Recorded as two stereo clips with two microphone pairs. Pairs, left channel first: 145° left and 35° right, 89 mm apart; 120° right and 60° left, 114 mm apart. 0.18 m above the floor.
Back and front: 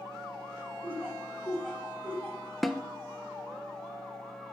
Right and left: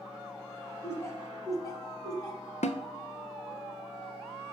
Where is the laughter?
75° right, 1.2 m; by 2.5 s 160° right, 1.4 m.